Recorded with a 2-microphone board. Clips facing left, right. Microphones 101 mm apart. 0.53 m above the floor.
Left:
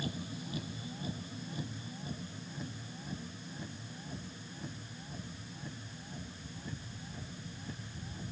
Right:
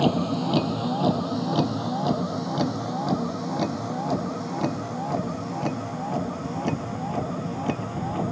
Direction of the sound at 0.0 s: 75° right (ahead or behind).